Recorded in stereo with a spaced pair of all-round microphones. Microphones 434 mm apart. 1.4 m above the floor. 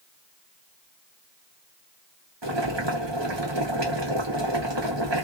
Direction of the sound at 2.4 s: 75° right (ahead or behind).